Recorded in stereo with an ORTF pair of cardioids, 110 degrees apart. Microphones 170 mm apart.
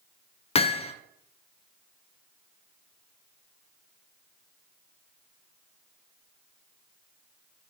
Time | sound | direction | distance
0.6 | hammering | 35° left | 0.8 m